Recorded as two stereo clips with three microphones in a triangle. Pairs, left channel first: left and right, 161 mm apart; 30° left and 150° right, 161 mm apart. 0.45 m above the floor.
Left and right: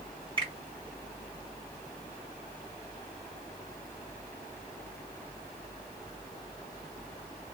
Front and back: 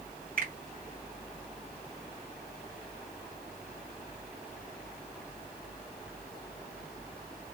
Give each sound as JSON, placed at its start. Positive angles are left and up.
{"t": 0.4, "sound": "a finger snap", "azimuth_deg": -145, "distance_m": 2.0}